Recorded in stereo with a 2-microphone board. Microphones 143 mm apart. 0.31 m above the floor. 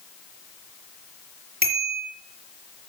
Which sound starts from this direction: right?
A bicycle bell, at 1.6 s.